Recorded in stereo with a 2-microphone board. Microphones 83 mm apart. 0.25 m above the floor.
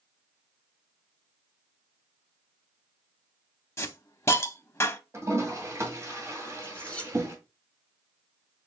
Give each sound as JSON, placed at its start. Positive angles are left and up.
{"t": 3.8, "sound": "a hiss", "side_deg": 35, "distance_m": 0.6}
{"t": 5.1, "sound": "a toilet flushing", "side_deg": -35, "distance_m": 1.9}
{"t": 6.6, "sound": "cutlery clinking", "side_deg": 15, "distance_m": 1.4}